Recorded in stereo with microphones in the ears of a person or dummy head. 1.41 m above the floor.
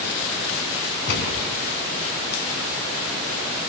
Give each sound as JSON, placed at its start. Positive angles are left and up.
{"t": 1.1, "sound": "a gunshot", "side_deg": 60, "distance_m": 4.5}